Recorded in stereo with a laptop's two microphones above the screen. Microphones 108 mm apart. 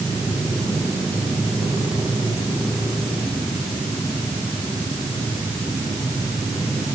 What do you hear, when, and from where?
Only background noise.